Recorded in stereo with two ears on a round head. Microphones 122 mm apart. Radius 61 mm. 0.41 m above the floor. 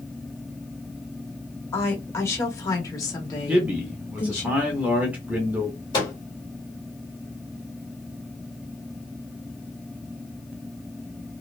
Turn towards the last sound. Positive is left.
turn(degrees=30)  # may be behind; listen again after turning